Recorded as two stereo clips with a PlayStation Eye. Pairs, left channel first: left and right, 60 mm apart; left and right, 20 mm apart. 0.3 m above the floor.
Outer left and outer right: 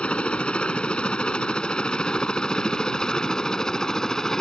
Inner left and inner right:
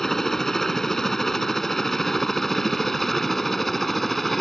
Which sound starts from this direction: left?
A helicopter, at 0.0 s.